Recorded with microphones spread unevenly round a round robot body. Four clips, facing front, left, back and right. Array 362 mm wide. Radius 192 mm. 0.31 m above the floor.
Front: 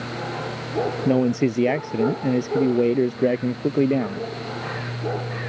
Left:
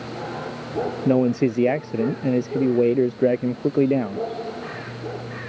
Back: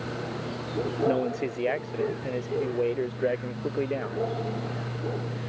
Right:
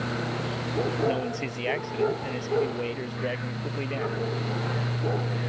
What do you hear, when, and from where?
1.1 s a man speaking: 45° left